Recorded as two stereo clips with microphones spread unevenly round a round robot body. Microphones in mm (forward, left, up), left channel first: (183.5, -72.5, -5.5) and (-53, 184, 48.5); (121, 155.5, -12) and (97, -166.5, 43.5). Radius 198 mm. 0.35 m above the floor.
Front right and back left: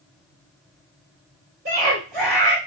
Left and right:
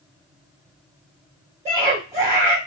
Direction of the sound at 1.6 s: 170° right.